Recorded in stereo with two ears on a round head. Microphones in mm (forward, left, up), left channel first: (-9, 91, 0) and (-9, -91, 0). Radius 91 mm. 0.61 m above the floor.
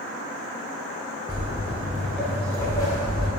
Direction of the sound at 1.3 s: 25° right (ahead or behind).